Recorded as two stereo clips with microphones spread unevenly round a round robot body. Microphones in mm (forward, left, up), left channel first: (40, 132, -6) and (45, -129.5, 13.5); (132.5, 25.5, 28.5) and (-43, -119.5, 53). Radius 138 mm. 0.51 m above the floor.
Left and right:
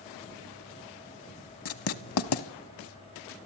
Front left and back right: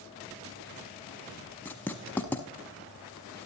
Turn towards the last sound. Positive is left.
turn(degrees=125)